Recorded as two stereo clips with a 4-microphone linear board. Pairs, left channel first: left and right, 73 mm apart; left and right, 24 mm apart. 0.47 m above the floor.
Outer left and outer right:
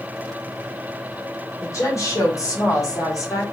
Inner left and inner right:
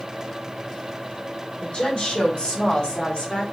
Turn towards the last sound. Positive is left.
turn(degrees=50)  # may be behind; listen again after turning